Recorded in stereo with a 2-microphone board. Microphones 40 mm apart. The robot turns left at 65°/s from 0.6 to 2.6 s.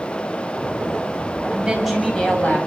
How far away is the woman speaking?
About 7 m.